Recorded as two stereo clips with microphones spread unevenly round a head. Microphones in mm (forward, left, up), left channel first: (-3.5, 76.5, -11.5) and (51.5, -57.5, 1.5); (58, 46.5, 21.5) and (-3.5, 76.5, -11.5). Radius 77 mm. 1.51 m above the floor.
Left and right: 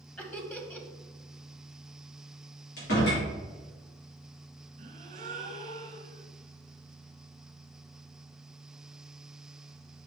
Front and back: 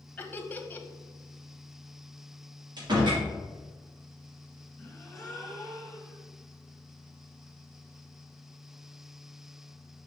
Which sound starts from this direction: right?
A gasp, at 4.8 s.